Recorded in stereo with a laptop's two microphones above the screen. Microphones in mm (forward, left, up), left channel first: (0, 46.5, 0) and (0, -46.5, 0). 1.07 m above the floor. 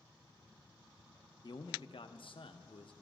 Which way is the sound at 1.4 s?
50° left (ahead or behind).